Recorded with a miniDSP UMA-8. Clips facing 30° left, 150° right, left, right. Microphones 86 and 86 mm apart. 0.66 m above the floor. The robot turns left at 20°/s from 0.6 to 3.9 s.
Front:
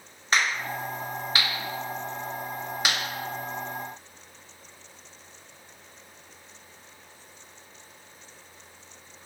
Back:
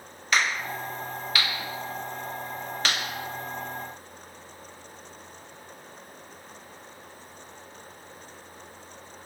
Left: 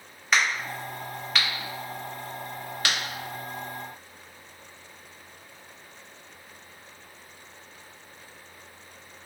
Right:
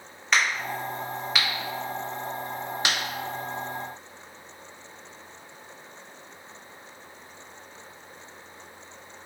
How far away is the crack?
About 0.8 m.